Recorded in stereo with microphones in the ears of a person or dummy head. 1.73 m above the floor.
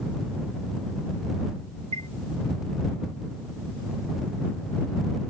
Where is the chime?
35° right (ahead or behind).